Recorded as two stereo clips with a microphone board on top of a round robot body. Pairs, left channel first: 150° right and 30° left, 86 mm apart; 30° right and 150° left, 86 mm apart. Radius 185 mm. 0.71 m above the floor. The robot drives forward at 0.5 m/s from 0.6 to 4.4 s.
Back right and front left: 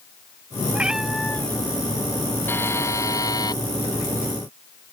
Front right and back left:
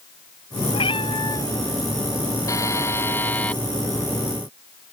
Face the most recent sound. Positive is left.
turn(degrees=-120)